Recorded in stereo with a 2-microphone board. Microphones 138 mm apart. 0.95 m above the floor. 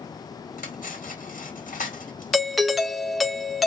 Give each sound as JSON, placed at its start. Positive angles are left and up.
{"t": 0.6, "sound": "cutlery clinking", "side_deg": 85, "distance_m": 2.0}
{"t": 2.3, "sound": "a doorbell", "side_deg": 0, "distance_m": 0.6}